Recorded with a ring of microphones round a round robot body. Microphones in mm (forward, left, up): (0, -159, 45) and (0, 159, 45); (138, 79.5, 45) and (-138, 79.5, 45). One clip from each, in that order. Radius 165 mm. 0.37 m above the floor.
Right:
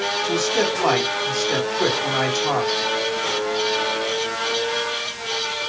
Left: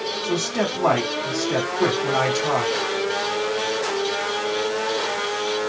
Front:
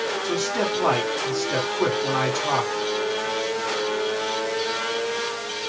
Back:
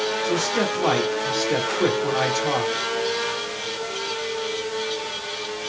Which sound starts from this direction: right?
A man speaking, at 0.2 s.